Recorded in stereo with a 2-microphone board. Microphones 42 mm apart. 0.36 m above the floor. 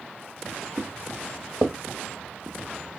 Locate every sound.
0.8 s footsteps: 40° right (ahead or behind), 1.9 m; by 3.0 s 20° right (ahead or behind), 0.8 m